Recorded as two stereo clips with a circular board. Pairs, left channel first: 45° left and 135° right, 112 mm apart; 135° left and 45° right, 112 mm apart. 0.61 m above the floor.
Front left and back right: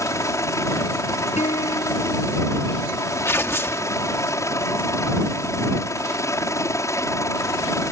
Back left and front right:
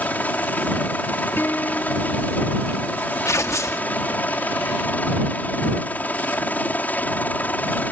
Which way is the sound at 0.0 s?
75° left.